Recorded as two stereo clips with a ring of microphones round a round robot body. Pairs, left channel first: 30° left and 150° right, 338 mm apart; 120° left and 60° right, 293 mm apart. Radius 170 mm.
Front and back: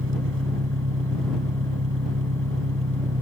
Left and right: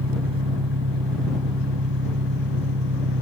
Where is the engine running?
95° right.